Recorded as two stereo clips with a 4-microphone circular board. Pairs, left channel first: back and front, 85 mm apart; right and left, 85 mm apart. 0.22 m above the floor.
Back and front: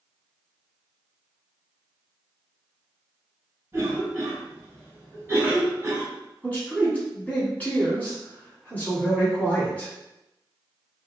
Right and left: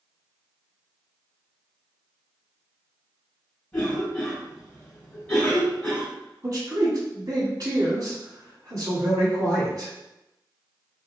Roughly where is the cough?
Ahead right.